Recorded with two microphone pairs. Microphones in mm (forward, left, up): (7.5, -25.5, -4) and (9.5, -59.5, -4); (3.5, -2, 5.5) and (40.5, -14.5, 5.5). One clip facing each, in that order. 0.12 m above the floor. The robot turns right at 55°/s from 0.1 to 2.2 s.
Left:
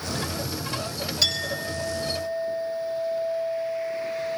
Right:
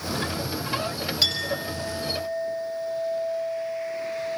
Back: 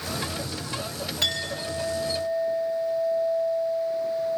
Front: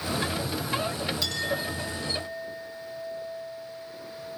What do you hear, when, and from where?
1.2 s a clink: 160° right, 8 m; by 4.4 s 105° right, 8 m